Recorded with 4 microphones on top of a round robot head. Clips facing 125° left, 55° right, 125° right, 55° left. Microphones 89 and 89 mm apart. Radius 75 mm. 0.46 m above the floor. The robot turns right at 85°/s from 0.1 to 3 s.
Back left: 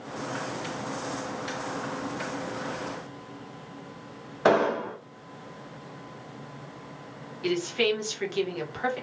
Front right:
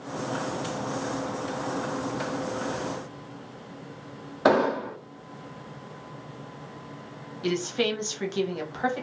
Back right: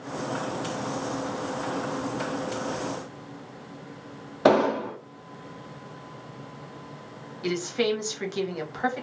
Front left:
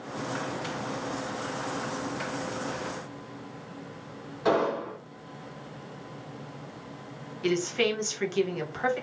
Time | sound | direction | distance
4.5 | an explosion | 135° right | 0.5 m
7.4 | a woman speaking | 65° right | 1.2 m